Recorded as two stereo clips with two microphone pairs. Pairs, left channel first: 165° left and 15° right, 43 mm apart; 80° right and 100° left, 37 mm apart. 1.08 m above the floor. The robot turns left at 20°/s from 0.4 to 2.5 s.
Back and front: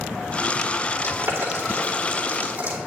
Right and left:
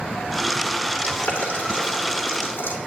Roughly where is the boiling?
Ahead right.